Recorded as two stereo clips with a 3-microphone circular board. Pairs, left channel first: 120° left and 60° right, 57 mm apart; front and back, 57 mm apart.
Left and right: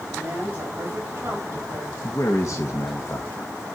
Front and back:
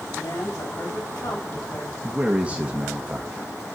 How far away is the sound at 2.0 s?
About 1.2 m.